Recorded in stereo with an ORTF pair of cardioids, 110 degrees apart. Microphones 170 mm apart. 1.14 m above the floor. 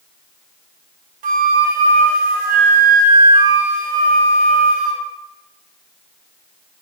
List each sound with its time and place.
1.2 s a flute: 55° right, 0.6 m